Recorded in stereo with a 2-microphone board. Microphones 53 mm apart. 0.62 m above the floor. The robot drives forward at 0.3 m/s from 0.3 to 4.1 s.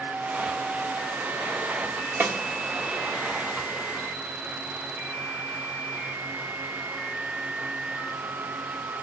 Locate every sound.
2.2 s a snare drum: 40° right (ahead or behind), 1.2 m